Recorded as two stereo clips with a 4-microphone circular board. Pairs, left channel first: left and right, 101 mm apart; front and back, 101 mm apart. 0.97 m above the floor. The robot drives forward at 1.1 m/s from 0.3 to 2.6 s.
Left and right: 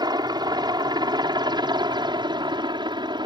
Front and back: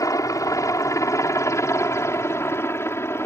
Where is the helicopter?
50° right; by 3.3 s 60° right.